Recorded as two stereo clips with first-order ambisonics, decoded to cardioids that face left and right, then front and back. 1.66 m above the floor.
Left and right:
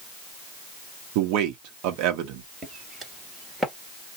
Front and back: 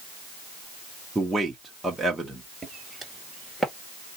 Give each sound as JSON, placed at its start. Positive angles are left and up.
{"t": 1.1, "sound": "a man speaking", "azimuth_deg": -95, "distance_m": 1.1}
{"t": 2.6, "sound": "footsteps", "azimuth_deg": -125, "distance_m": 1.9}